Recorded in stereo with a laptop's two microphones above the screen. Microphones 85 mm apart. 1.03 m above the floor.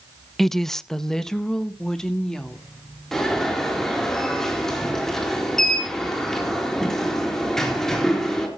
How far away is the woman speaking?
About 0.5 m.